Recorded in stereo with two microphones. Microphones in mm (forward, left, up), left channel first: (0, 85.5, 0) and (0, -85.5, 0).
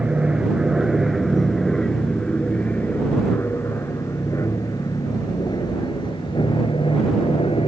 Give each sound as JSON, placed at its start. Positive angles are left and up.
{"t": 0.0, "sound": "an aircraft", "side_deg": -5}